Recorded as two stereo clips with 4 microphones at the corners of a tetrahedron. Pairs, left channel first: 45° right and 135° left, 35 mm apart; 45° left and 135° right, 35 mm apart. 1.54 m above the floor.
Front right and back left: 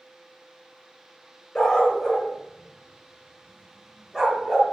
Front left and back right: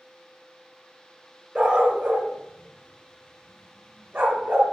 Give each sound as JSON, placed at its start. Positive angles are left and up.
{"t": 1.6, "sound": "a dog barking", "azimuth_deg": -105, "distance_m": 1.7}